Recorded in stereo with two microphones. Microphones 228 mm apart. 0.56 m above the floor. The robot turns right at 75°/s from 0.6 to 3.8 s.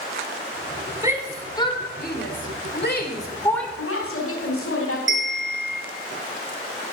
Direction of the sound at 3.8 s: 65° left (ahead or behind).